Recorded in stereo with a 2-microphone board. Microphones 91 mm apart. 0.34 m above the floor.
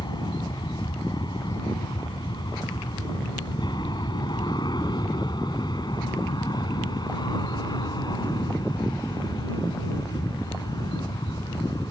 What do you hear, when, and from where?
0.0 s an aircraft: 55° left (ahead or behind); by 11.9 s 50° left (ahead or behind)